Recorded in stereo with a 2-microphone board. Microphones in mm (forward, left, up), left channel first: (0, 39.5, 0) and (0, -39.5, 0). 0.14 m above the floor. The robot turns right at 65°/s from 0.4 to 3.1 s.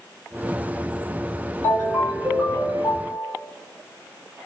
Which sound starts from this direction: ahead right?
A ringtone, at 1.6 s.